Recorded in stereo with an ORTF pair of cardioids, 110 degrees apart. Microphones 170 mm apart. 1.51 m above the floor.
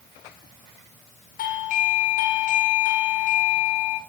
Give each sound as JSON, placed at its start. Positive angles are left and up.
{"t": 1.4, "sound": "a doorbell", "azimuth_deg": 55, "distance_m": 0.8}